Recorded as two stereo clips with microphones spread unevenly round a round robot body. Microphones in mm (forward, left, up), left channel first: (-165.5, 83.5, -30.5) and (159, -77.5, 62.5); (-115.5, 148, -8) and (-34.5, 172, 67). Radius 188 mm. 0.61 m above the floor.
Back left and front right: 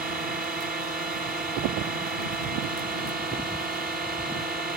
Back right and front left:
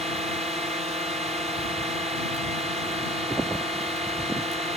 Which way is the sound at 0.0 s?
45° left.